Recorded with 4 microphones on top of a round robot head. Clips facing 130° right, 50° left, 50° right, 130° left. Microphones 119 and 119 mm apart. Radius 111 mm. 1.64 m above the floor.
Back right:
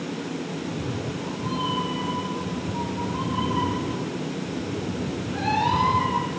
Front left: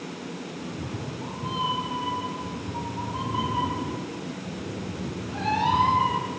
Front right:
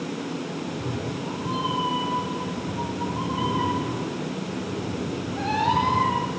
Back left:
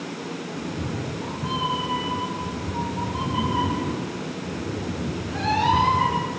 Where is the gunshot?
I don't hear a gunshot.